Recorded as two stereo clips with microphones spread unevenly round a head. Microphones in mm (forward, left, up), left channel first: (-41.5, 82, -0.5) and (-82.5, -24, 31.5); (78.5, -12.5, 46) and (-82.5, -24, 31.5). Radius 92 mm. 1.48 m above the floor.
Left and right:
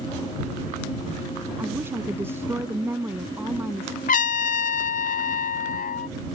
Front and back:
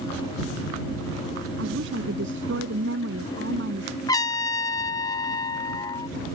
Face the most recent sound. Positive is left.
turn(degrees=75)